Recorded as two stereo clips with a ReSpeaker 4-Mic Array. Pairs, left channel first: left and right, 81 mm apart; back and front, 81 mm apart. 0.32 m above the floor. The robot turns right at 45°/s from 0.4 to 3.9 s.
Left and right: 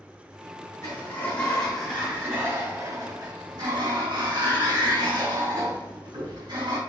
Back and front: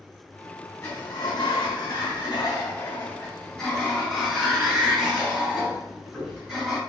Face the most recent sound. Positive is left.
turn(degrees=-85)